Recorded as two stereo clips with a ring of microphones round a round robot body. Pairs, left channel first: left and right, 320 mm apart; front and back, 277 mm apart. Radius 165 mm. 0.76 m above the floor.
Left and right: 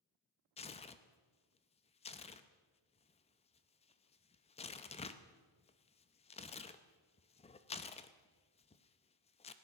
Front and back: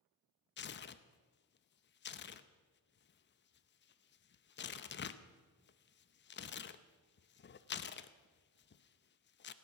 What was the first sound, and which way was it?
Tearing paper, 30° left.